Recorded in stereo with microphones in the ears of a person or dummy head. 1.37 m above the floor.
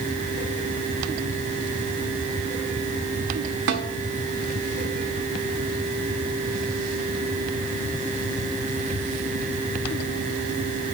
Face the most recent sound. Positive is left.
turn(degrees=-55)  # may be behind; listen again after turning